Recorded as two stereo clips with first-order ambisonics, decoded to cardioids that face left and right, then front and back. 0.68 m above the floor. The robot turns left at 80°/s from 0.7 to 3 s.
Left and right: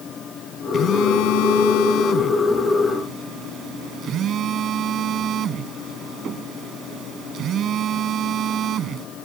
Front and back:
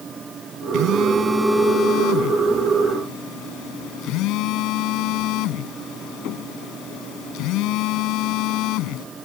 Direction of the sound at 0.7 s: 150° left.